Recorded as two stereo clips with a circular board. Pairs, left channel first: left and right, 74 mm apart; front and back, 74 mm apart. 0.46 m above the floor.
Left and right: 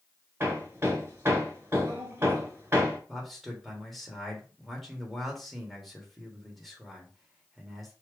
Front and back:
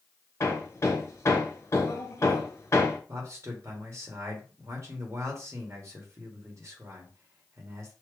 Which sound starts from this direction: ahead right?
Hammering, at 0.4 s.